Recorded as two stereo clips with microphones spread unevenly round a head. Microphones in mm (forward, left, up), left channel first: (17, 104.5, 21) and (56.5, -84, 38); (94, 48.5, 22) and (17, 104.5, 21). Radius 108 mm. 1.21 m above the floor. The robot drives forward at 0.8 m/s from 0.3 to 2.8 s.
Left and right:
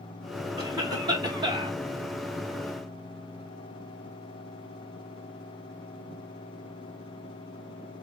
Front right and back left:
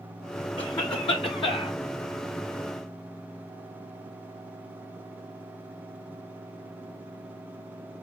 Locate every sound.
0.6 s a cough: 5° right, 1.7 m; by 1.8 s 10° right, 0.8 m